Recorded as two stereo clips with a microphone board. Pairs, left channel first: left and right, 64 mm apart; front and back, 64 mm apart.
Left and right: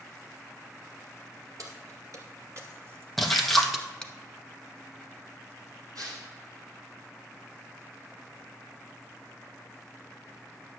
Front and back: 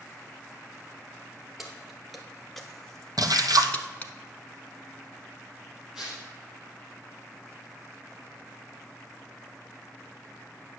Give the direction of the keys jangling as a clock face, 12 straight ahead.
3 o'clock.